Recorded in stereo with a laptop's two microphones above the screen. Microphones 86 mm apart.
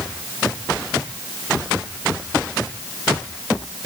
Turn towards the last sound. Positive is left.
No sound to turn to.